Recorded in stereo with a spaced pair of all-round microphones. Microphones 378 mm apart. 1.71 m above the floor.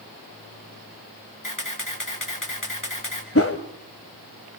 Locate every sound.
1.4 s a camera shutter: 55° left (ahead or behind), 3.5 m
3.4 s a whoosh: 35° left (ahead or behind), 1.8 m